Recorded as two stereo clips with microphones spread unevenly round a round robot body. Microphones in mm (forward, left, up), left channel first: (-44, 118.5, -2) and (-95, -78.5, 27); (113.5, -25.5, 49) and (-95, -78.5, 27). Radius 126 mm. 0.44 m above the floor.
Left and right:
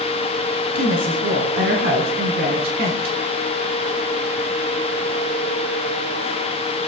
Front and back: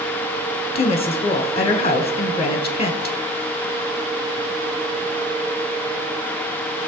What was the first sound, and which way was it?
A woman speaking, 50° right.